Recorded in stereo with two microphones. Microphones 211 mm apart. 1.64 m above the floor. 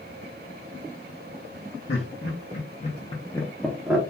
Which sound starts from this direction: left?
Laughter, at 1.9 s.